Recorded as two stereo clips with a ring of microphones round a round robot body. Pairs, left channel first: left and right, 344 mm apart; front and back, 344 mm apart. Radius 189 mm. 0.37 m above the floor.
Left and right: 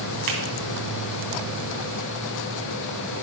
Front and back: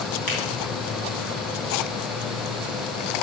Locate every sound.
0.3 s a finger snap: 65° right, 3 m